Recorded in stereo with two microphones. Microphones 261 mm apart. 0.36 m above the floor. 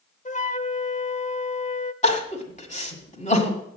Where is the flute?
30° left (ahead or behind), 0.6 m.